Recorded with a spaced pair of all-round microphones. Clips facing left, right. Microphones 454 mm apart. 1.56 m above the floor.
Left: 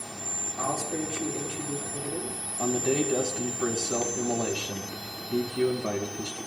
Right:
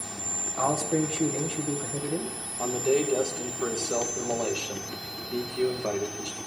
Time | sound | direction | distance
0.6 | a man speaking | 75° right (ahead or behind) | 1.5 m
2.6 | a man speaking | 35° left (ahead or behind) | 1.5 m